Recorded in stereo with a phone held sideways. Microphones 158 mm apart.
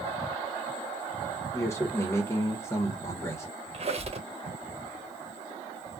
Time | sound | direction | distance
1.5 | a man speaking | 20° left (ahead or behind) | 1.2 m
3.7 | a squeak | 45° right (ahead or behind) | 0.7 m